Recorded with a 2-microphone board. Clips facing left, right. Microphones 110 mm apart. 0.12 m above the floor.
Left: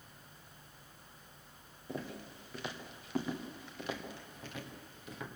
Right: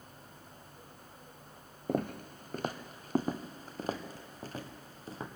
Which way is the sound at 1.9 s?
55° right (ahead or behind).